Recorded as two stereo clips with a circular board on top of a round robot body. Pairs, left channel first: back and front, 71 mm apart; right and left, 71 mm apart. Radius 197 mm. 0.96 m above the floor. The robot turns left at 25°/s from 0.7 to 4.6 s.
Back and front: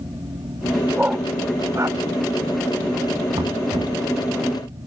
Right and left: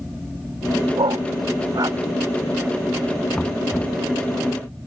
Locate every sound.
1.0 s a dog barking: 75° left; by 2.0 s 45° left
3.3 s knocking: 10° right; by 4.0 s 25° right